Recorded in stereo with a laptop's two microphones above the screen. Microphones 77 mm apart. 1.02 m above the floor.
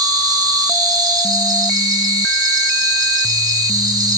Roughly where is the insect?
Right.